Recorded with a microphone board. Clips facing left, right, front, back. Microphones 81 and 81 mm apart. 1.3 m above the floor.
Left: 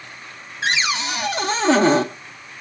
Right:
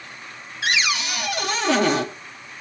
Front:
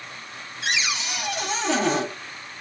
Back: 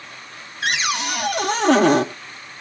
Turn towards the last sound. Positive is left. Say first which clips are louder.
# left 2 dB, back 5 dB
turn(degrees=150)